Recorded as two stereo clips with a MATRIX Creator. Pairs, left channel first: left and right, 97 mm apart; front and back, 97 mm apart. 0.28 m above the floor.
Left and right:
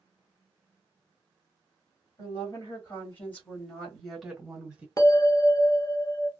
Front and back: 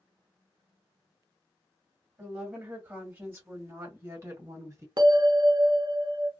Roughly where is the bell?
Behind left.